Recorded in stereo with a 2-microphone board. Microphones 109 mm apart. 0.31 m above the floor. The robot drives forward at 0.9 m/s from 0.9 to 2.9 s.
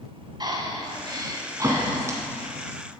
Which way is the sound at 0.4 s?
40° right (ahead or behind).